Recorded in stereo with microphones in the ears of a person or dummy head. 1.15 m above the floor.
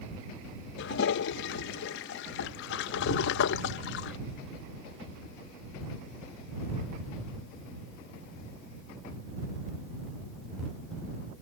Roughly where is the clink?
I don't hear a clink.